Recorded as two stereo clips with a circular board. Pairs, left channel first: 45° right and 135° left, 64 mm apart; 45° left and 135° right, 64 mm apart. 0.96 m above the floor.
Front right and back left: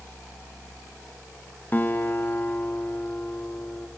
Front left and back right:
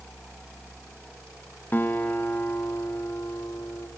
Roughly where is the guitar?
Ahead.